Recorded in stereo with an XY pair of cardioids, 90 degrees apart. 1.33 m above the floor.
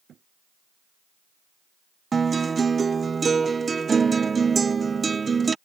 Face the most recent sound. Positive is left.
turn(degrees=-35)